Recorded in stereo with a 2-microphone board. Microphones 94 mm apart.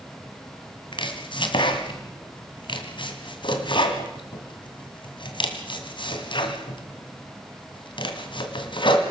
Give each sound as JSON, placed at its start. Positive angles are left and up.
{"t": 0.9, "sound": "chopping", "side_deg": 60, "distance_m": 2.5}